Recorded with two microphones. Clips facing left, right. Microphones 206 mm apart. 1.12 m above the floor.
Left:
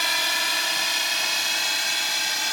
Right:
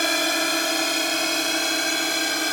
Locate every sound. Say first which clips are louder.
0.0 s a drone: right 10 dB; 50° right (ahead or behind); by 2.5 s 55° right (ahead or behind)